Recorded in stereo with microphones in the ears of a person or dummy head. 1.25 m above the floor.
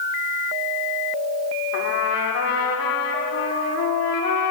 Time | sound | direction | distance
1.7 | a trumpet | 75° left (ahead or behind) | 3.5 m